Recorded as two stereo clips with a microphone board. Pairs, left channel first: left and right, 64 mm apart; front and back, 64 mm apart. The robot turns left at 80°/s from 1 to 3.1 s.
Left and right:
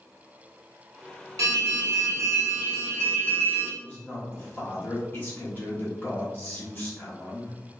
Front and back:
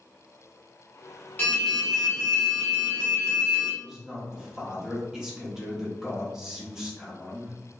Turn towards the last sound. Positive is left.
turn(degrees=105)